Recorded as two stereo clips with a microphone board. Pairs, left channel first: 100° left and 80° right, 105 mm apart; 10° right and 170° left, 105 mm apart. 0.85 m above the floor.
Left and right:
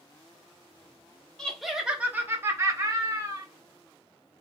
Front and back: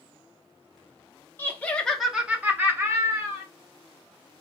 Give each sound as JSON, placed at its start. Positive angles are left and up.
{"t": 1.4, "sound": "laughter", "azimuth_deg": 25, "distance_m": 0.5}